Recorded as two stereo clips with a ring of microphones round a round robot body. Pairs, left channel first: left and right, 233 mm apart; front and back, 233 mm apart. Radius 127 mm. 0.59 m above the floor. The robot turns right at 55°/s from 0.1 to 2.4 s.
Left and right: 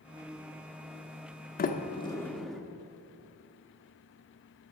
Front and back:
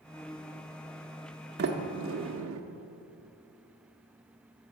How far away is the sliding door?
About 0.9 m.